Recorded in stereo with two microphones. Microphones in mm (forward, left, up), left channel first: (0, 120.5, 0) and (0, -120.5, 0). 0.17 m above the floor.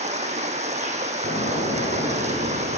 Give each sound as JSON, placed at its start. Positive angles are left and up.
{"t": 0.0, "sound": "running water", "side_deg": -30, "distance_m": 1.3}
{"t": 1.2, "sound": "an explosion", "side_deg": 35, "distance_m": 4.5}